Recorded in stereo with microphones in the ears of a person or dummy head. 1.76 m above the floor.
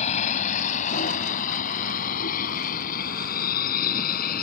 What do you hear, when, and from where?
0.0 s a vehicle: 40° left (ahead or behind); by 4.4 s 50° left (ahead or behind)